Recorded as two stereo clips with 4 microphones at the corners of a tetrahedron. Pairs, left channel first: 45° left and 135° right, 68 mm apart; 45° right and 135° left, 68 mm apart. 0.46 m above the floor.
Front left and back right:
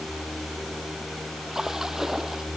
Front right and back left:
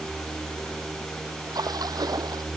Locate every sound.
1.5 s a splash: 140° left